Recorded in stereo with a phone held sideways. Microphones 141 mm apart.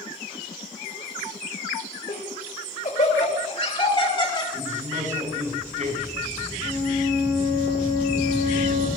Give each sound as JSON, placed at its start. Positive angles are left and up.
{"t": 2.1, "sound": "laughter", "side_deg": 80, "distance_m": 2.5}
{"t": 4.5, "sound": "a man speaking", "side_deg": -60, "distance_m": 8.5}
{"t": 6.6, "sound": "a flute", "side_deg": -80, "distance_m": 6.0}